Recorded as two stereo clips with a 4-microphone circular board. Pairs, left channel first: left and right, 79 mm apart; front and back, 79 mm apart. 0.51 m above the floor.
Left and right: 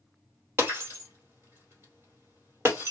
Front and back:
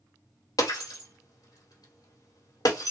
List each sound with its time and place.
0.6 s breaking glass: 30° right, 2 m